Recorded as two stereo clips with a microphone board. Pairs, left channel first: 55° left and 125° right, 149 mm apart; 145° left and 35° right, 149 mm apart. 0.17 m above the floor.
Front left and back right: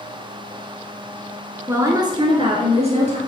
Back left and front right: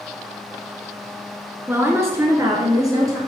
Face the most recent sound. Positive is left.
turn(degrees=-95)